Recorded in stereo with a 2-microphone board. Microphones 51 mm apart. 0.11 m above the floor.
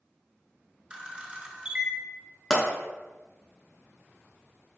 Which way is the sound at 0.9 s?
20° right (ahead or behind).